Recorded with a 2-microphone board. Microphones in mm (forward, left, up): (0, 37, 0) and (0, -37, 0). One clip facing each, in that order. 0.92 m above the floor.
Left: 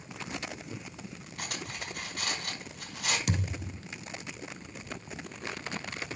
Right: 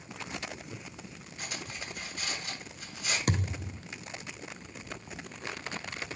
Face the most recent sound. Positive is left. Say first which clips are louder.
# right 1 dB
turn(degrees=-45)  # may be behind; listen again after turning